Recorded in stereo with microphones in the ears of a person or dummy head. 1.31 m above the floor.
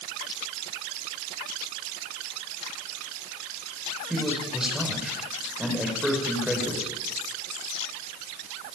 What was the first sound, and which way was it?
A man speaking, centre (ahead or behind).